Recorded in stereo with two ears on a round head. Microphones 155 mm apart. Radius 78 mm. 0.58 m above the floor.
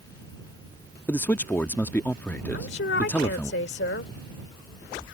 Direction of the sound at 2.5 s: 70° left (ahead or behind).